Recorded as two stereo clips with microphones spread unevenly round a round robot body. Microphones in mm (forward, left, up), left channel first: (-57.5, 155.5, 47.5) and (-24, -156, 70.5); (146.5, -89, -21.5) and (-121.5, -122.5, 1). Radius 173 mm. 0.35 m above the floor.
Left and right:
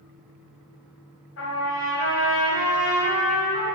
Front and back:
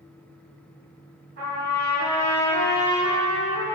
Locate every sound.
1.4 s a trumpet: 135° left, 2.5 m